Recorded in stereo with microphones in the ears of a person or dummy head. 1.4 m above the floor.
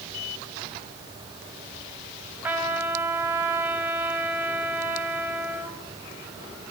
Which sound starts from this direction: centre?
A trumpet, at 2.4 s.